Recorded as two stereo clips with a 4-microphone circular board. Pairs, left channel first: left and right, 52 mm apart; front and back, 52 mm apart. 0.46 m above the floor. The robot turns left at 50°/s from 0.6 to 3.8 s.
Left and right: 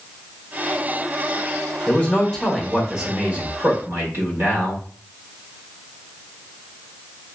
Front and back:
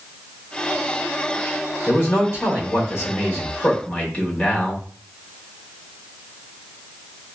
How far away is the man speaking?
About 1.4 m.